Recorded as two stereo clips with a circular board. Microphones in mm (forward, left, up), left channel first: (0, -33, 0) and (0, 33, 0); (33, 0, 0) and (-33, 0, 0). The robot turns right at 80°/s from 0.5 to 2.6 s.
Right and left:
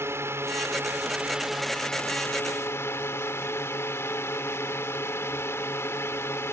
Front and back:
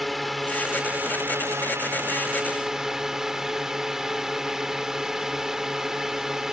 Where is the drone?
90° left; by 6.5 s 100° right.